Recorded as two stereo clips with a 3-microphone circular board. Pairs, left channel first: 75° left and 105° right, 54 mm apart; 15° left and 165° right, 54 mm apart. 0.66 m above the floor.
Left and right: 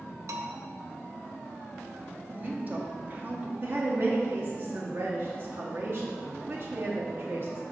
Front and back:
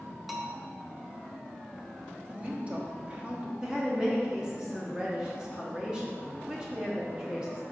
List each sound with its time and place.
0.3 s a bell: 80° right, 0.7 m
2.3 s a woman speaking: 125° right, 1.1 m
3.6 s a woman speaking: 100° right, 0.9 m